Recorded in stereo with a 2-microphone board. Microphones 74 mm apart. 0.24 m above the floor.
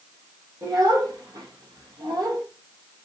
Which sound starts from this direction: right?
A child speaking, at 0.6 s.